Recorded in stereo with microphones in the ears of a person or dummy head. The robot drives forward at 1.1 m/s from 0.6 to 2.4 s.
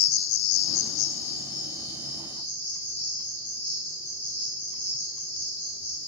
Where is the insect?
85° left, 1.0 m; by 6.1 s 25° left (ahead or behind), 2 m.